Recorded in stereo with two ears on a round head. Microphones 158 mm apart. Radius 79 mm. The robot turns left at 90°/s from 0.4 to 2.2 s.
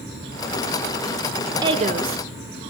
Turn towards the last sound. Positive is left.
turn(degrees=-80)